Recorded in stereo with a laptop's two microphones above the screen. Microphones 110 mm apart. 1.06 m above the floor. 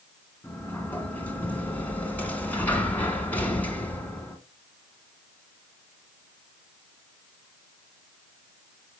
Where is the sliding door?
15° left (ahead or behind), 1.5 m.